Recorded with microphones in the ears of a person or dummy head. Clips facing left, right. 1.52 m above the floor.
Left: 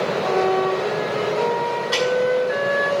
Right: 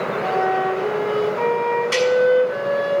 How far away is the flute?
About 5.5 m.